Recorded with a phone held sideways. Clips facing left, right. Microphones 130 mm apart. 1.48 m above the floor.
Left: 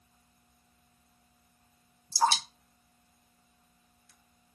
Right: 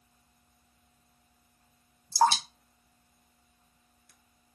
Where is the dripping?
60° right (ahead or behind), 0.9 m.